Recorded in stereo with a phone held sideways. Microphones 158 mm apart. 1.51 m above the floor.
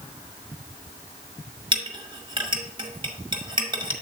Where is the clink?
30° right (ahead or behind), 1.1 m.